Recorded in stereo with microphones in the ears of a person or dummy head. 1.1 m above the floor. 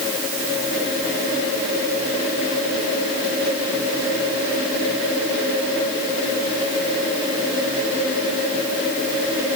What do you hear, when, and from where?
Only background noise.